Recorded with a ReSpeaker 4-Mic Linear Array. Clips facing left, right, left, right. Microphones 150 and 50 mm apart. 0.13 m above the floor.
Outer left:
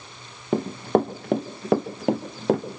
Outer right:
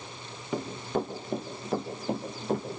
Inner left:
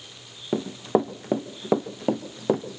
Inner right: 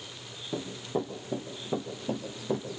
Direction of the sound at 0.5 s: 55° left (ahead or behind).